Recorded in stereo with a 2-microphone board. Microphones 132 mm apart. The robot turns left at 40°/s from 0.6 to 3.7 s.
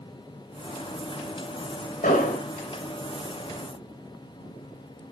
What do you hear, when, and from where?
2.0 s an explosion: 80° left, 3.5 m; by 2.5 s 65° left (ahead or behind), 3.5 m